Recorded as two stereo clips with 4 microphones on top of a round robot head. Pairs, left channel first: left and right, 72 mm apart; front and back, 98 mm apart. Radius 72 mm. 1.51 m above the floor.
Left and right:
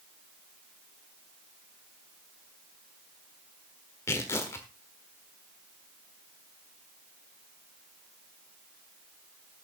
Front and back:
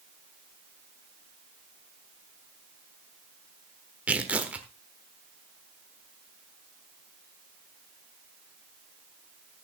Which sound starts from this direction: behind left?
Tearing paper, at 4.1 s.